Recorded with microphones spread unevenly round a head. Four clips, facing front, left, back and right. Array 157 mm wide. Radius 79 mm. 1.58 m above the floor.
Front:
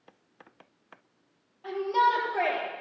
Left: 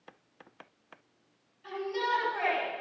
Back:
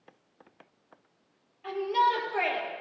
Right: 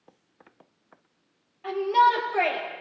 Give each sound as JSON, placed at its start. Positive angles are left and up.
{"t": 1.6, "sound": "a shout", "azimuth_deg": -60, "distance_m": 10.0}